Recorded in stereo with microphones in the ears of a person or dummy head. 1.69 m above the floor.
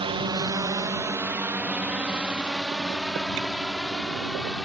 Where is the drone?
20° right (ahead or behind); by 4.6 s 5° left (ahead or behind).